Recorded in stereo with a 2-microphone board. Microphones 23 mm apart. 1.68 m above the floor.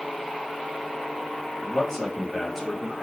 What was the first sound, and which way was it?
A man speaking, 20° left (ahead or behind).